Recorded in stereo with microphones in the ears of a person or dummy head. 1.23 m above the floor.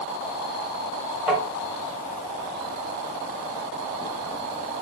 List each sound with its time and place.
1.3 s tapping: 5° right (ahead or behind), 1.0 m